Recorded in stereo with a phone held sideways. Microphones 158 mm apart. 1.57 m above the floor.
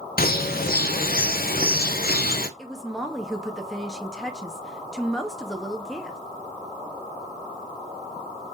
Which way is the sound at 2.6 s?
Centre (ahead or behind).